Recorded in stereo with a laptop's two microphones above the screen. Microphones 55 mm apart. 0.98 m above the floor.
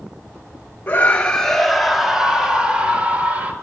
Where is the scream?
30° left (ahead or behind), 1.7 m; by 3.5 s 25° right (ahead or behind), 4 m.